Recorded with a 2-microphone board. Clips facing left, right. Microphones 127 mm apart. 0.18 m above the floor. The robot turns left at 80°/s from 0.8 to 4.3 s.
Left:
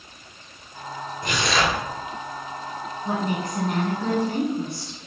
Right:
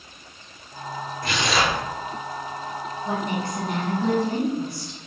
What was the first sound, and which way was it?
Tearing paper, 20° left.